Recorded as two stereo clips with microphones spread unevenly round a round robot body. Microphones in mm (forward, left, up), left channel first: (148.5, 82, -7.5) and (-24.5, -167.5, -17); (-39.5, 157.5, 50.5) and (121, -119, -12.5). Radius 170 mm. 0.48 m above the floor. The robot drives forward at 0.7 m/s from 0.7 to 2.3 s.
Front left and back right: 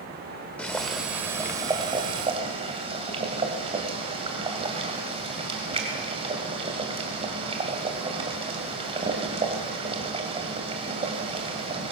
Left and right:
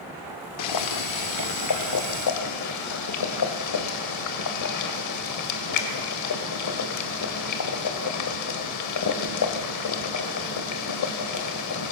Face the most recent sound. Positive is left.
turn(degrees=160)